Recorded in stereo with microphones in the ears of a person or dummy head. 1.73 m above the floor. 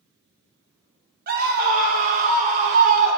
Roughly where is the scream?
Right.